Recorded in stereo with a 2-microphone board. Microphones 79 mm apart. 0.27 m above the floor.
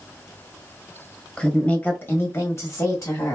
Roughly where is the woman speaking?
Centre.